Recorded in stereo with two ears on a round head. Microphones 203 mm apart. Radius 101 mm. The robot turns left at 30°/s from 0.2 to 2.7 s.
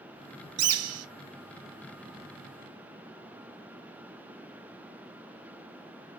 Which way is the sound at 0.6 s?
70° right (ahead or behind).